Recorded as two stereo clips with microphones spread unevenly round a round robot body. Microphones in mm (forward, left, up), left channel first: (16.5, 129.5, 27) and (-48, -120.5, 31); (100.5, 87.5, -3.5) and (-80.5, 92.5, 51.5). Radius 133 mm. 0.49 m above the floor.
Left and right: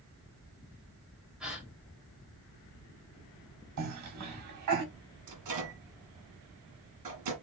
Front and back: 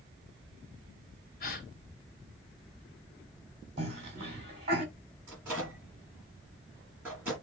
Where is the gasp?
20° right, 2 m.